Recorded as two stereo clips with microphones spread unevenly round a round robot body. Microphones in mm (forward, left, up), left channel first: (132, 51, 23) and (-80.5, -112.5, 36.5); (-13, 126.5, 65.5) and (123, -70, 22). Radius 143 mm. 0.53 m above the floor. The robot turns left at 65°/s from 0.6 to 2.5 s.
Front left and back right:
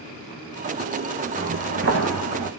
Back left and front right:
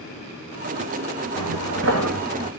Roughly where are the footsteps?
Right.